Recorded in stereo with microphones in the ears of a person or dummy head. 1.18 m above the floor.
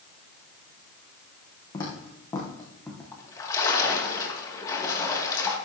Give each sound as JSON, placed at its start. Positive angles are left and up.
{"t": 1.7, "sound": "footsteps", "side_deg": 20, "distance_m": 3.0}
{"t": 3.1, "sound": "a splash", "side_deg": 20, "distance_m": 2.0}